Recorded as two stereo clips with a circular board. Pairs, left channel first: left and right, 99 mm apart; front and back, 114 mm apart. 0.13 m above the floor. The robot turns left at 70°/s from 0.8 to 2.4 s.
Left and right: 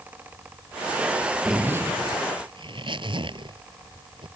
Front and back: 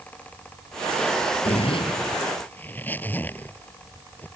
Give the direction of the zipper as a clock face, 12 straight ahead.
12 o'clock.